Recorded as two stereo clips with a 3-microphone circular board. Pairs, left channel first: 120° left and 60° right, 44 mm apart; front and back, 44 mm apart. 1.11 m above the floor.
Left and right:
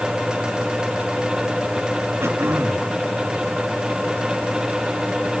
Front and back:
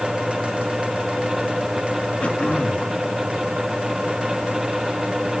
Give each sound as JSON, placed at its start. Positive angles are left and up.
{"t": 2.2, "sound": "throat clearing", "azimuth_deg": -65, "distance_m": 1.2}